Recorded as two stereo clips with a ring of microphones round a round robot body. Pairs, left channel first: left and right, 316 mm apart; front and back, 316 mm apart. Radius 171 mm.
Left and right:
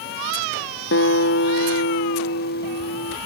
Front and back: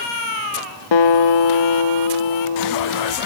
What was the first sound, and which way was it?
A guitar, 30° left.